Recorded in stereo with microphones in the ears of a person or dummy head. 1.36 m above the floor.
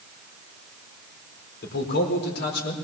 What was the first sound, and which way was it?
A man speaking, 70° left (ahead or behind).